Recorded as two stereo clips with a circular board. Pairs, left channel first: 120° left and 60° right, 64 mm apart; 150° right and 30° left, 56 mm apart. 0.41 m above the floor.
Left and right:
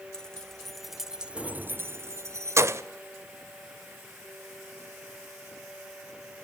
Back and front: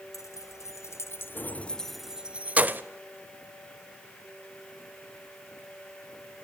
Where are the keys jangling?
160° right, 1.1 m; by 2.8 s 25° right, 0.8 m.